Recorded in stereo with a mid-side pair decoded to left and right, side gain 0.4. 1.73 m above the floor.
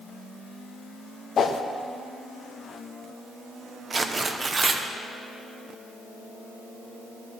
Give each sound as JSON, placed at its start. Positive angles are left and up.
{"t": 1.4, "sound": "a whoosh", "azimuth_deg": 55, "distance_m": 0.6}
{"t": 3.9, "sound": "tearing paper", "azimuth_deg": -30, "distance_m": 0.7}